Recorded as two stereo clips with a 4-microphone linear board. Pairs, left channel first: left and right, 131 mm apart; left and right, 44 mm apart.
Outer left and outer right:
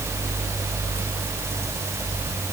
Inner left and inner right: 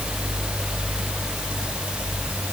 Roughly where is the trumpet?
No trumpet in this recording.